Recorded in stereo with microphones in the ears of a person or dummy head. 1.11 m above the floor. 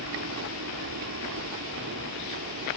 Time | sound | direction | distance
0.0 | a helicopter | 65° right (ahead or behind) | ?